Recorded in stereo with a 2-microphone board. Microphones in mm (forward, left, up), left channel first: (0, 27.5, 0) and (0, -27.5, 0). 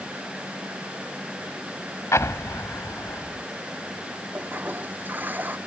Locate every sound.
2.1 s an explosion: 65° left (ahead or behind)
4.3 s a toilet flushing: 35° right (ahead or behind)